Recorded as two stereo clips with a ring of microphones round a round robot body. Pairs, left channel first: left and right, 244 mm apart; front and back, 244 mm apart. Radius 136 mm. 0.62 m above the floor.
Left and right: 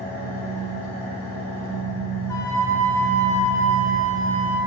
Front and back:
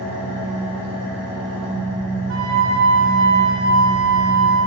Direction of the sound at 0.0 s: 30° left.